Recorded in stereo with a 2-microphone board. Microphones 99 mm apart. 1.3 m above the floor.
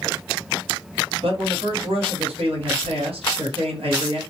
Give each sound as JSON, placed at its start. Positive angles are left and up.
{"t": 1.2, "sound": "a man speaking", "side_deg": -70, "distance_m": 1.2}